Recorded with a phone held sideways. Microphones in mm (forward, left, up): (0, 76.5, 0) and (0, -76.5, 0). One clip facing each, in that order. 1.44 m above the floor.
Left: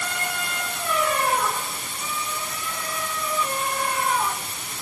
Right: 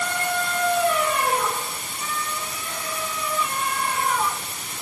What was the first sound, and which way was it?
Only background noise.